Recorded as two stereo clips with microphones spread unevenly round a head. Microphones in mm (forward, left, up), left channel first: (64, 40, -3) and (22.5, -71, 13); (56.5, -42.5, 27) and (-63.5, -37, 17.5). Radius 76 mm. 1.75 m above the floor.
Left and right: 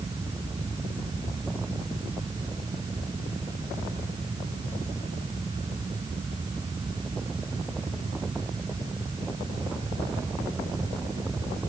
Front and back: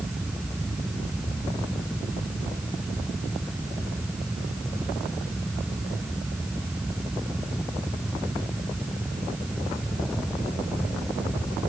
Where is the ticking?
I don't hear ticking.